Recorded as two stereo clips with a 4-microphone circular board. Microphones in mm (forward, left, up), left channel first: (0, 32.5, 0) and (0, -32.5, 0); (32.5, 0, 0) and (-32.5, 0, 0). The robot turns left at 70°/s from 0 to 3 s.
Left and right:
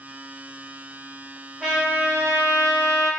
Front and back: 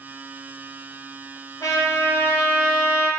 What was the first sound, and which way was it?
A trumpet, 5° right.